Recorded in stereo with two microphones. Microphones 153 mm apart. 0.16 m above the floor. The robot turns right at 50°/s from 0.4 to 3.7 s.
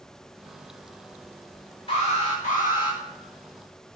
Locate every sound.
1.9 s an alarm: 40° left, 3 m; by 3.0 s 100° left, 3 m